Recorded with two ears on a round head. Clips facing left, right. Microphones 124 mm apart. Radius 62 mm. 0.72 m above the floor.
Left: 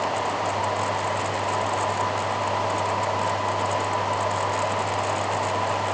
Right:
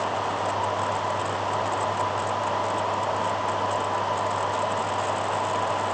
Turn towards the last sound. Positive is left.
No sound to turn to.